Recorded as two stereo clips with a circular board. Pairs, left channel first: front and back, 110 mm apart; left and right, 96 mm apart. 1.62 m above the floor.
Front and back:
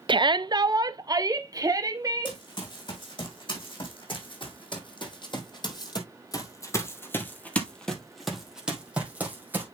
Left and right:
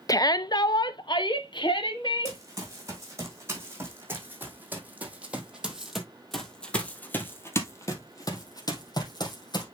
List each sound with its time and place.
0.1 s a shout: 140° left, 0.5 m; by 2.4 s 120° left, 2 m
2.2 s running footsteps: 35° right, 4.5 m; by 9.7 s 110° left, 3 m